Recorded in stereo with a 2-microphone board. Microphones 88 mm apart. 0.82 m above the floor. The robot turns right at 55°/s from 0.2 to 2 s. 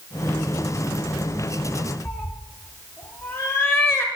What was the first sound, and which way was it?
A cat meowing, 30° left (ahead or behind).